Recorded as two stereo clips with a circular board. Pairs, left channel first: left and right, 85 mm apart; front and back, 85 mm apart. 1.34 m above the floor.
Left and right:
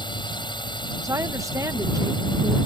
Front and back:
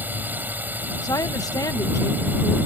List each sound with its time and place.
0.0 s a drone: 110° left
1.0 s a woman speaking: 40° right